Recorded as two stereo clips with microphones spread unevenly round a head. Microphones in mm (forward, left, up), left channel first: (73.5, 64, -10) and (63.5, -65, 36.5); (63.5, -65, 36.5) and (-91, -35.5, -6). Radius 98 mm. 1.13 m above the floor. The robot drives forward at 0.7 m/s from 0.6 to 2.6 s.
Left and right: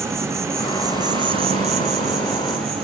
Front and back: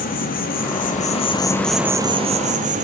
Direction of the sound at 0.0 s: 30° right.